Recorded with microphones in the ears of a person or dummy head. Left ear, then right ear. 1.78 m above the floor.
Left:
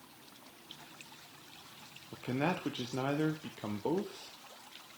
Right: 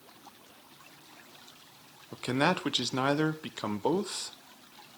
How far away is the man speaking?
About 1.0 m.